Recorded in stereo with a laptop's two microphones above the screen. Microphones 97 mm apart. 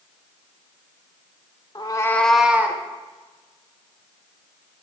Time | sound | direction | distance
1.8 | a cat meowing | 45° left (ahead or behind) | 0.9 m